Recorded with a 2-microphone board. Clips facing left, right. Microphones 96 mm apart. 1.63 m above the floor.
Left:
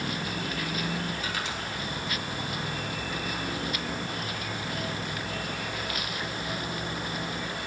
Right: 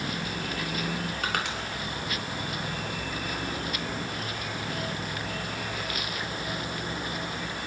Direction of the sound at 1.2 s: 65° right (ahead or behind).